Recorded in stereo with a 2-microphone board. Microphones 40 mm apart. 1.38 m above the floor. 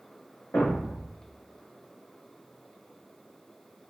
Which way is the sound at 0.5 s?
65° left (ahead or behind).